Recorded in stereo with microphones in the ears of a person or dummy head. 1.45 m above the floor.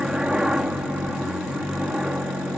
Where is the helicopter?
5° right (ahead or behind).